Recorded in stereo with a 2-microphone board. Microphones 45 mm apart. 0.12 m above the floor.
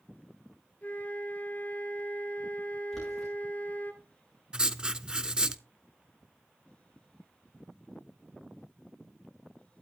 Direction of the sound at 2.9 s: 5° left (ahead or behind).